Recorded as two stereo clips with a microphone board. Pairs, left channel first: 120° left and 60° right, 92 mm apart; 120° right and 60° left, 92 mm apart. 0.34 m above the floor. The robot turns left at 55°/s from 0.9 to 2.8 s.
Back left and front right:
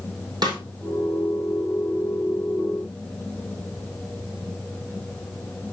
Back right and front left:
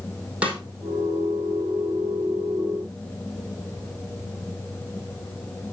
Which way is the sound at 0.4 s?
20° right.